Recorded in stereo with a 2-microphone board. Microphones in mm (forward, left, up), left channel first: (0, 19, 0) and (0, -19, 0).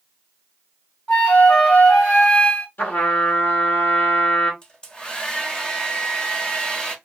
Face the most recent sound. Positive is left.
turn(degrees=25)  # may be behind; listen again after turning